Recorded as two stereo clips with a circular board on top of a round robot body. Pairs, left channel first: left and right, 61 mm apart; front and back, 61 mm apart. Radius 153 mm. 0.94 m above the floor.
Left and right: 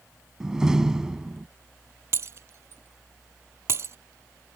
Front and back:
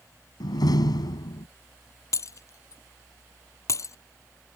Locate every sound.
0.4 s a door slam: 10° right
2.1 s breaking glass: 40° right